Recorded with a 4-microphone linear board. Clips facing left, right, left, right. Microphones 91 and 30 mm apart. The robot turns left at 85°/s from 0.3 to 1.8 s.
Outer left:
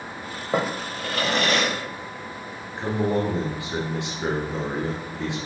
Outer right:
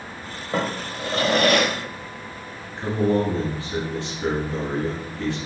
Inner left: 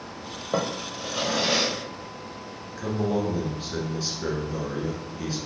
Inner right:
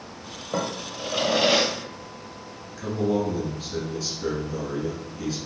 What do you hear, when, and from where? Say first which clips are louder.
0.5 s a drawer: outer left 1 dB, inner left 1 dB; 20° left, 0.7 m; by 1.7 s 80° right, 0.7 m
2.8 s a man speaking: outer right 2 dB, inner right 2 dB; 20° left (ahead or behind), 1.1 m